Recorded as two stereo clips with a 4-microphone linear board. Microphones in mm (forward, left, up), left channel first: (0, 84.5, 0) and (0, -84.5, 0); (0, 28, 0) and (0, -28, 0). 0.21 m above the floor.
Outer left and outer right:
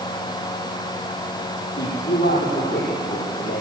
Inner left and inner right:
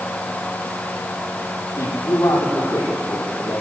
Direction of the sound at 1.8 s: 65° left (ahead or behind).